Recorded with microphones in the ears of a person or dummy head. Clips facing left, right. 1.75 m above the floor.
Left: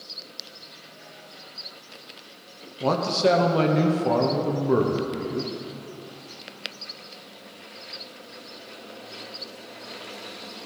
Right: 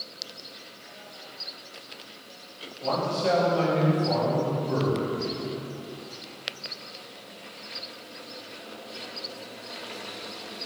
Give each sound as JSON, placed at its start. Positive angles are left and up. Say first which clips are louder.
{"t": 2.8, "sound": "a man speaking", "louder": "left 5 dB", "side_deg": 65, "distance_m": 1.3}